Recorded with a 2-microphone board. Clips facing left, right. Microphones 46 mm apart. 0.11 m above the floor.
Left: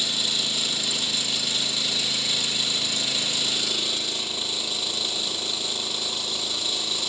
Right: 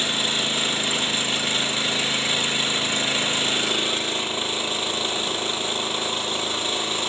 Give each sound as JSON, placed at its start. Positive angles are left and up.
{"t": 0.0, "sound": "an engine running", "side_deg": -35, "distance_m": 0.9}